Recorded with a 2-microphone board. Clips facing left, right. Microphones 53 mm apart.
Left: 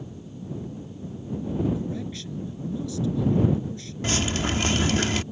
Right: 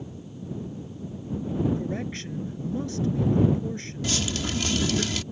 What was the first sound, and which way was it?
A man speaking, 45° right (ahead or behind).